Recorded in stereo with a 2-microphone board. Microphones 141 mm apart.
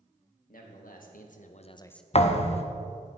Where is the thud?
50° left (ahead or behind), 0.6 m.